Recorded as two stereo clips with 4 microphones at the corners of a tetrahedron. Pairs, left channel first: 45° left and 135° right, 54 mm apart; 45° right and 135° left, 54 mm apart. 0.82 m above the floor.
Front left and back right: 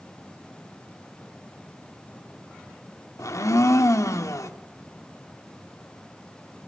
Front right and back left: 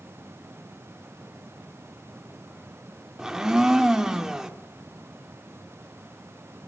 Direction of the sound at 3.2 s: 55° left.